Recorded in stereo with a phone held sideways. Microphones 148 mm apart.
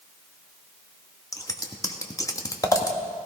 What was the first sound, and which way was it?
Scissors, 25° left (ahead or behind).